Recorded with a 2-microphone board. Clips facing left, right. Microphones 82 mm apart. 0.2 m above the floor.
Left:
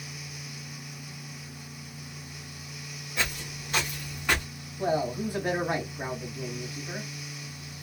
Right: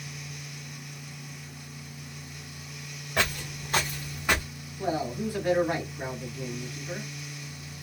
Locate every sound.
3.2 s footsteps: 65° right (ahead or behind), 1.3 m; by 4.5 s 5° right (ahead or behind), 1.2 m
4.8 s a man speaking: 20° left (ahead or behind), 1.0 m